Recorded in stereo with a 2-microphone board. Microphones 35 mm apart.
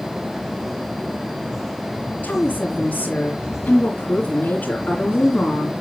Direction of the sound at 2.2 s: 45° left (ahead or behind).